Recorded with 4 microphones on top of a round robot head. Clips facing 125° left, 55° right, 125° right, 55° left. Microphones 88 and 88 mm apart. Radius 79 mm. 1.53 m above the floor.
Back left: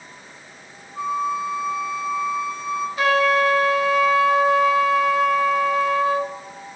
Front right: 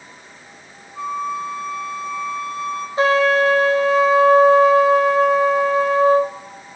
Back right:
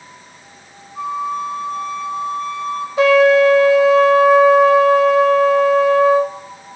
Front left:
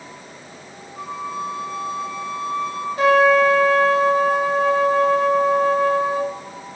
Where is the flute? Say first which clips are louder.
Back left 1 dB, back right 6 dB; 150° right, 2.5 m.